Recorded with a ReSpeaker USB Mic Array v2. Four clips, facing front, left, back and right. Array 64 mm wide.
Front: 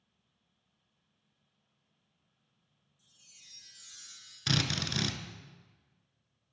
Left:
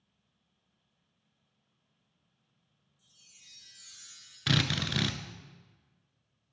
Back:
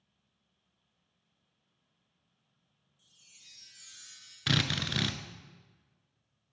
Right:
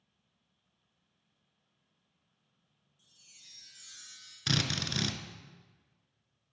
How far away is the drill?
About 0.5 m.